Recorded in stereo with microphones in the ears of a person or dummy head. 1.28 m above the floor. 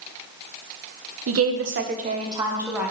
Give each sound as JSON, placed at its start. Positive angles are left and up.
{"t": 1.3, "sound": "a woman speaking", "side_deg": -70, "distance_m": 0.9}